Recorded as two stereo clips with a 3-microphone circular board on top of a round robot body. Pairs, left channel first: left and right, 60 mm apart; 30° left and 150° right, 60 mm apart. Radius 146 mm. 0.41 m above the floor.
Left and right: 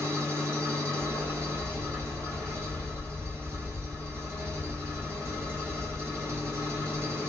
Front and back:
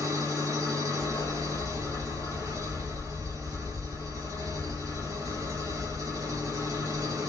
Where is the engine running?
135° right, 4.5 m.